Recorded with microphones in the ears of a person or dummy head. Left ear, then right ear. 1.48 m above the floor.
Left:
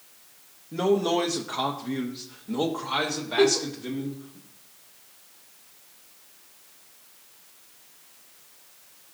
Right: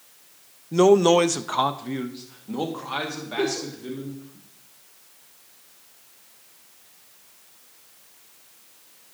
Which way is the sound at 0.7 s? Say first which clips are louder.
Right 8 dB; 75° right (ahead or behind).